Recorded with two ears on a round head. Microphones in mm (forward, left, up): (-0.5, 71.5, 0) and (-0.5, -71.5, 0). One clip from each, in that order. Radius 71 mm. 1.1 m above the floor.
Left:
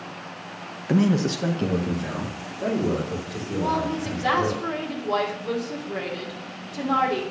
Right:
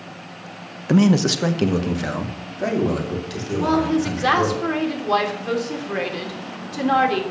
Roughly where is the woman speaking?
Right.